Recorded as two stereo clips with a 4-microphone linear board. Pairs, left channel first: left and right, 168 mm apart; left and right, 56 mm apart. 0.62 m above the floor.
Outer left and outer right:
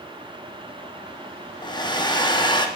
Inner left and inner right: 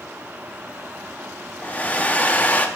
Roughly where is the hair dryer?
Left.